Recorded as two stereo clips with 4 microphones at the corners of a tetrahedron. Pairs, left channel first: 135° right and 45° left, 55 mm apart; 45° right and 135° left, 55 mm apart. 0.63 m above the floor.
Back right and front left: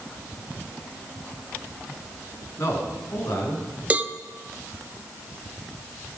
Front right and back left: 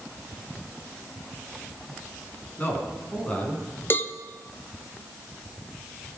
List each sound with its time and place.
2.6 s a man speaking: 105° right, 7.5 m; by 3.6 s 115° right, 7 m
3.9 s a cowbell: 10° right, 0.8 m